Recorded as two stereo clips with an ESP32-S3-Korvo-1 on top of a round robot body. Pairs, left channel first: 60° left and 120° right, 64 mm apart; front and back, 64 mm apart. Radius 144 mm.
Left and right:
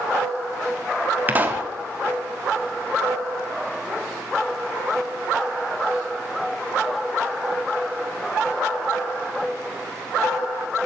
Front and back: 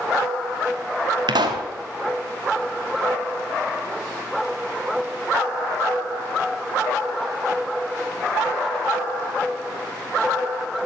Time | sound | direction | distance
1.3 | a pop | 175° left | 1.0 m